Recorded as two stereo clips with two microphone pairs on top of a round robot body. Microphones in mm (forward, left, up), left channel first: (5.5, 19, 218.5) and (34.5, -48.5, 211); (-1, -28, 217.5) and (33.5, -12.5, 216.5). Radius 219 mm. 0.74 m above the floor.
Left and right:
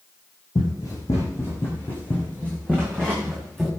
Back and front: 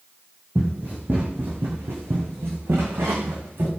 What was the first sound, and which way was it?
Running footsteps, 80° left.